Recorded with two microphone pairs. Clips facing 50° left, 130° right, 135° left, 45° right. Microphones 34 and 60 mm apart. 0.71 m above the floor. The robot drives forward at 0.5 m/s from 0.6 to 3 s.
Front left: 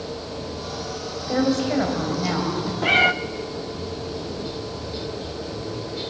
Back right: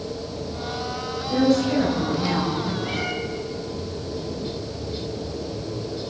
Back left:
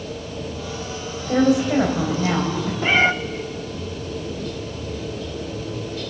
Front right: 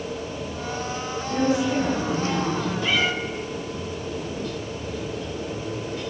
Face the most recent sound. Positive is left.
turn(degrees=85)